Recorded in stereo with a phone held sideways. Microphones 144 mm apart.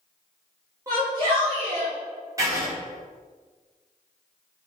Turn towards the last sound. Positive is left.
turn(degrees=-20)  # may be behind; listen again after turning